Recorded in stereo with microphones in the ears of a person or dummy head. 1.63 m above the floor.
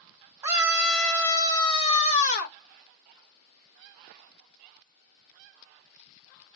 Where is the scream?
15° right (ahead or behind), 1.3 m; by 2.6 s 55° left (ahead or behind), 1.4 m.